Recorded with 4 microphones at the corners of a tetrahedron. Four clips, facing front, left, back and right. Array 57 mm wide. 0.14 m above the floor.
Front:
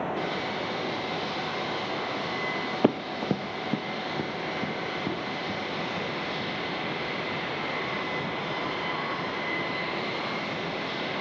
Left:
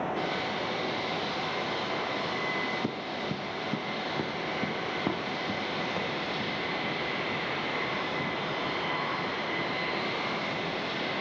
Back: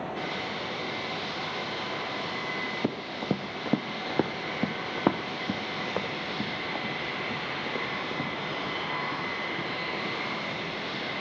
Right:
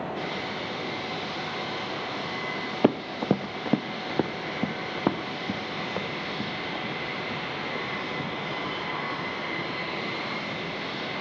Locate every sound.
2.8 s running footsteps: 55° right, 0.7 m; by 11.0 s 160° right, 6.5 m